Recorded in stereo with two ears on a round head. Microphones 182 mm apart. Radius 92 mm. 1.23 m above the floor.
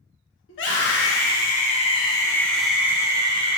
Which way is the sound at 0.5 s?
60° left (ahead or behind).